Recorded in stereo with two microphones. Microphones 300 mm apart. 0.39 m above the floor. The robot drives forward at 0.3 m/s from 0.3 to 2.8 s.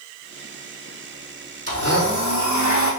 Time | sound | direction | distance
1.7 | a blender | 50° right (ahead or behind) | 3 m